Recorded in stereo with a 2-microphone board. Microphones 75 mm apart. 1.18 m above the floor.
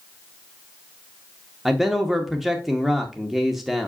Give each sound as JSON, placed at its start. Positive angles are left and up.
{"t": 1.6, "sound": "a man speaking", "side_deg": 0, "distance_m": 1.0}